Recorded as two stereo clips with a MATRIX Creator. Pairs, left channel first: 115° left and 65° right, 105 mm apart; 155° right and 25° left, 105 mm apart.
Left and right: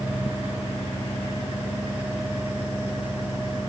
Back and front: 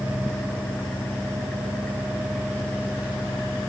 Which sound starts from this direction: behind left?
An engine running, at 0.0 s.